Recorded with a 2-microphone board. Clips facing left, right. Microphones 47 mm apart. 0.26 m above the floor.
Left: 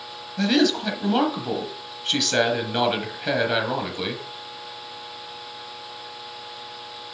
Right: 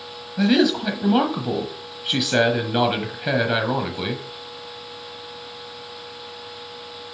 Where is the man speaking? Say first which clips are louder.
Right 2 dB; 10° right (ahead or behind), 1.3 m.